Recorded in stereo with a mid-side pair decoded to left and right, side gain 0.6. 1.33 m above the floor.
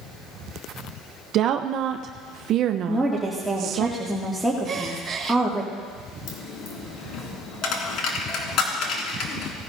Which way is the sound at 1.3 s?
55° right.